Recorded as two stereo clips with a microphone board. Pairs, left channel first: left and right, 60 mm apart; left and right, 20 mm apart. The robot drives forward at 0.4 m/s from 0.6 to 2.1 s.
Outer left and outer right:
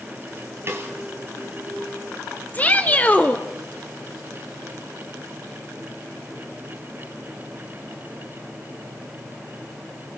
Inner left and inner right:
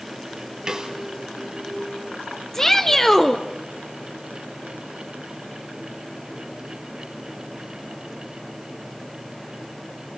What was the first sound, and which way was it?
A snare drum, 40° right (ahead or behind).